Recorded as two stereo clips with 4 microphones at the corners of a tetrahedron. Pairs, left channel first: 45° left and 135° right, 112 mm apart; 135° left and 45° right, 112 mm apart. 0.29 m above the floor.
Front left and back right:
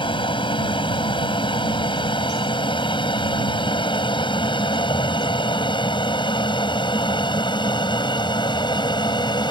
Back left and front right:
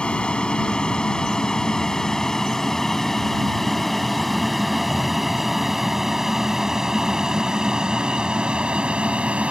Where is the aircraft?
55° left; by 9.5 s 30° left.